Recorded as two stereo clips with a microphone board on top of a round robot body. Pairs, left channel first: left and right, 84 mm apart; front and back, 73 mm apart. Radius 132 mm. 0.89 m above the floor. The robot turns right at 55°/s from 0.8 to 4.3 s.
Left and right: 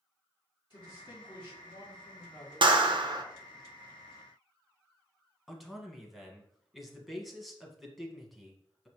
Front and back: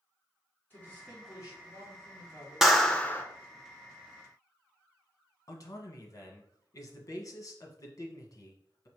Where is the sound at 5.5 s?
Straight ahead, 1.2 m.